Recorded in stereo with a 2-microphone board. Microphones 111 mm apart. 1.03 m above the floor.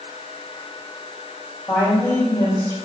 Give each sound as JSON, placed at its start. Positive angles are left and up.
{"t": 1.7, "sound": "a woman speaking", "side_deg": 20, "distance_m": 4.0}